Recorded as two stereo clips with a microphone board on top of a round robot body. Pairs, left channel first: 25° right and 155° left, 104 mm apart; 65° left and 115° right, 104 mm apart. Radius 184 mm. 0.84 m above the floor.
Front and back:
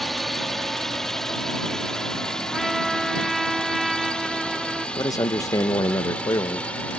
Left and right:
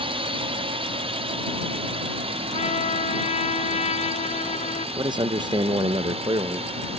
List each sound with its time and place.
0.0 s a drone: 110° right; by 7.0 s 100° right
2.5 s a trumpet: 70° left
5.0 s a man speaking: 75° right